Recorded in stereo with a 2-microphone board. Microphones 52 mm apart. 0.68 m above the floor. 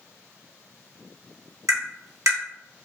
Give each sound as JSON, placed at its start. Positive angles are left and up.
{"t": 1.7, "sound": "tapping", "side_deg": -80, "distance_m": 1.5}